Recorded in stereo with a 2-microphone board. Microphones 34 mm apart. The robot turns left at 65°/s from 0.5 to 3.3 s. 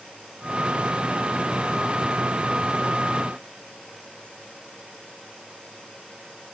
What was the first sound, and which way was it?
Only background noise.